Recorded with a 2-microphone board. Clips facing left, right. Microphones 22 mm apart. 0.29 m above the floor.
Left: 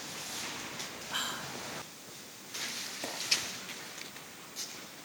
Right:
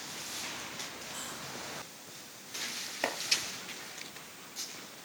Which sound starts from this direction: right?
Chopping, at 3.0 s.